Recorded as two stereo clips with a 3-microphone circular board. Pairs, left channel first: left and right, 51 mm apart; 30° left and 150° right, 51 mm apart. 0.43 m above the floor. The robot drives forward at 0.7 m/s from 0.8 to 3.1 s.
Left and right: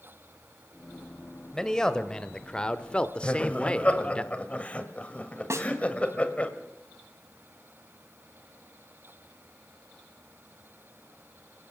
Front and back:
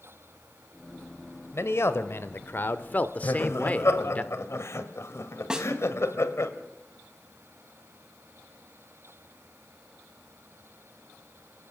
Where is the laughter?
30° left, 1.6 m.